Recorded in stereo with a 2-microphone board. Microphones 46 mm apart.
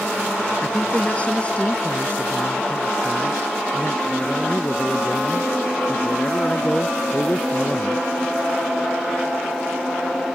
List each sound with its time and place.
0.6 s a man speaking: 25° left (ahead or behind)